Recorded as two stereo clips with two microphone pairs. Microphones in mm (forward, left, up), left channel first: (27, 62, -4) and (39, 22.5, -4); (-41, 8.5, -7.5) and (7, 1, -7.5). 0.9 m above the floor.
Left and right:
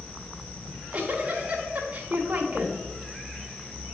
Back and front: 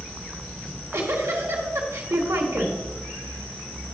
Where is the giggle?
15° right, 1.4 m.